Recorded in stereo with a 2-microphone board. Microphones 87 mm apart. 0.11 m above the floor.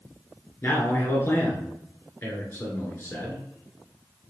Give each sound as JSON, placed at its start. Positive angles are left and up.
{"t": 0.6, "sound": "a man speaking", "side_deg": 30, "distance_m": 1.8}